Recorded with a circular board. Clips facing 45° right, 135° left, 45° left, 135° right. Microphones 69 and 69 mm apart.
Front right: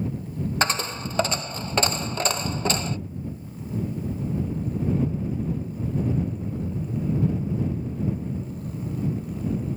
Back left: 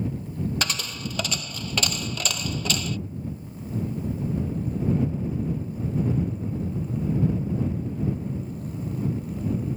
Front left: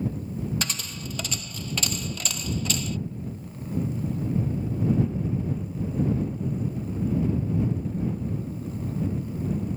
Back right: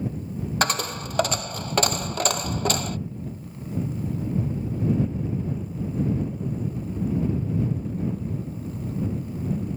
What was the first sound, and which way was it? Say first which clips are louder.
A dropped coin: front right 5 dB, back right 9 dB; 100° right.